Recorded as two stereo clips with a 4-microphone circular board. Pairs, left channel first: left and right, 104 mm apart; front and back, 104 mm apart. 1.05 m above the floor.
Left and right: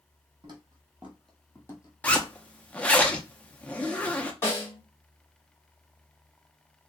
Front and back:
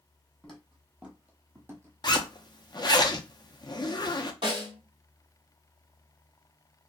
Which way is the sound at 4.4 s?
155° left.